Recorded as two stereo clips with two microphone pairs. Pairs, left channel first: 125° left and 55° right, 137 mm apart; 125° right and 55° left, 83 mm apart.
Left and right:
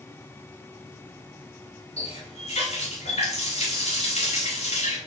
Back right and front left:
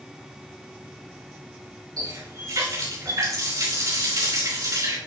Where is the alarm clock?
No alarm clock in this recording.